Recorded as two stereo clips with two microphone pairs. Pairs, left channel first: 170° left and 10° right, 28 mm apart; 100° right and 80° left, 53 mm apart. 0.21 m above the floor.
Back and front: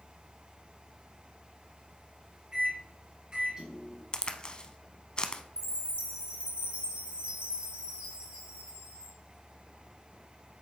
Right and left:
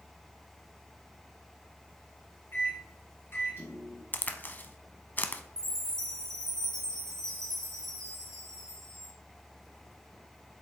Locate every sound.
2.5 s a microwave: 65° right, 1.8 m
4.1 s a crack: 140° right, 0.6 m
5.6 s a chime: 25° right, 2 m